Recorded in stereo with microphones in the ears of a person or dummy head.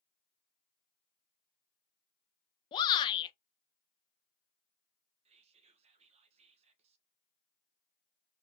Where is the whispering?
30° right (ahead or behind), 1.2 m.